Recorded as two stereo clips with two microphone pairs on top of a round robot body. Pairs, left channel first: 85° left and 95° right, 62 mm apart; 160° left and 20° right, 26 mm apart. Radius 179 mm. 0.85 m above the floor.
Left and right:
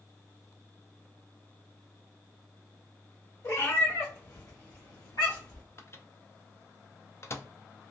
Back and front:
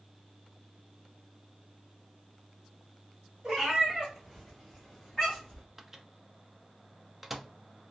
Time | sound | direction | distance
3.4 | a cat meowing | 50° left | 1.5 m
5.8 | a microwave | 50° left | 0.6 m